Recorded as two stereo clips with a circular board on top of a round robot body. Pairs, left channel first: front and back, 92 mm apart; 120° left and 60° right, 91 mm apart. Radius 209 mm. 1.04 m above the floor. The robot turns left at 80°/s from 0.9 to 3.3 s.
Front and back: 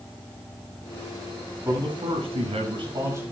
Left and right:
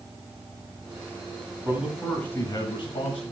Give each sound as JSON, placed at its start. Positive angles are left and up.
{"t": 1.6, "sound": "a man speaking", "azimuth_deg": -120, "distance_m": 6.5}